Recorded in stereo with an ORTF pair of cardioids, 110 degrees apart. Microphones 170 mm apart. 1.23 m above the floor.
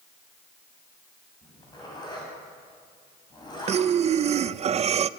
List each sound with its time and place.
1.4 s a zipper: 25° left, 7.5 m
3.7 s breathing: 40° right, 0.6 m